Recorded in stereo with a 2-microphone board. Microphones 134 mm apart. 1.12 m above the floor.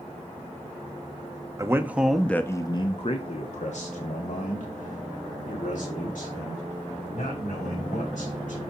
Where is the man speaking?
25° right (ahead or behind), 0.8 m; by 8.6 s 75° left (ahead or behind), 4 m.